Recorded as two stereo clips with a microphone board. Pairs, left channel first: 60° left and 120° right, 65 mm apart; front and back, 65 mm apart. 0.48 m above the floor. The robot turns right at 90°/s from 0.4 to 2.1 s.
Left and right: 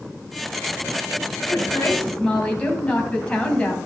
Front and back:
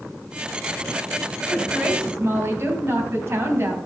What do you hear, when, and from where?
1.5 s a woman speaking: 75° left, 3 m; by 3.8 s 135° left, 3 m